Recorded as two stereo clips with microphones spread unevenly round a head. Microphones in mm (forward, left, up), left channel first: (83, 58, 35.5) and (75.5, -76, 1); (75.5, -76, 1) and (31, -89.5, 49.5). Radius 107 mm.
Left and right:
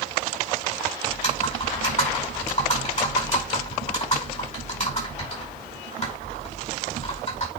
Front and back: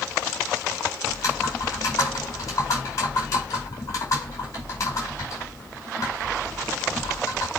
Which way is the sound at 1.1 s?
55° left.